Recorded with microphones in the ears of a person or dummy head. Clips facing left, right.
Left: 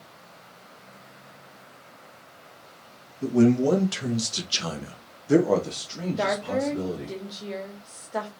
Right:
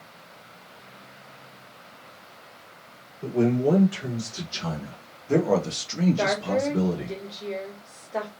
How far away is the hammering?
I don't hear hammering.